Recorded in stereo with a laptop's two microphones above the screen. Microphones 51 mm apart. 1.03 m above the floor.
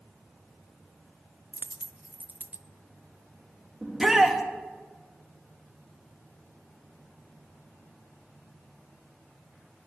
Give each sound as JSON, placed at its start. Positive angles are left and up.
{"t": 1.5, "sound": "a dropped coin", "side_deg": -30, "distance_m": 0.5}
{"t": 3.8, "sound": "a shout", "side_deg": -10, "distance_m": 1.9}